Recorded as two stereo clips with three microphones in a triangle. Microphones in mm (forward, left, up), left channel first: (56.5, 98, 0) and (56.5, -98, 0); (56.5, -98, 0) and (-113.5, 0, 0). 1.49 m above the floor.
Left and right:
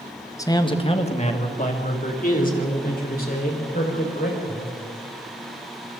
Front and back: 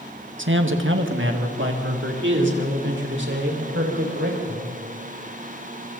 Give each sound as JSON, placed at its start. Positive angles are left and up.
{"t": 0.4, "sound": "a man speaking", "azimuth_deg": 165, "distance_m": 1.5}